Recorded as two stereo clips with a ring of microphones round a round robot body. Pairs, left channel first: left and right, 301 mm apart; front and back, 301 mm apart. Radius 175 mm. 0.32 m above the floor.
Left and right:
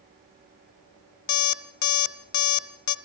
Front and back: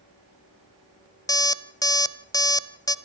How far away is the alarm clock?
About 1.4 m.